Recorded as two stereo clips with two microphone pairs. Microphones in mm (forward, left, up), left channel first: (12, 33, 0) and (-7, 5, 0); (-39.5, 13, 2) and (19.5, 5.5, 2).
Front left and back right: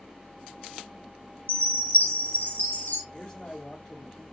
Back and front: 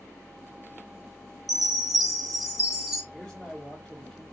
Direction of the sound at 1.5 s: 85° left.